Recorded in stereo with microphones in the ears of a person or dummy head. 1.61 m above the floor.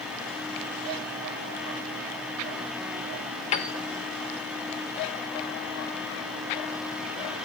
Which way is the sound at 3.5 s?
40° left (ahead or behind).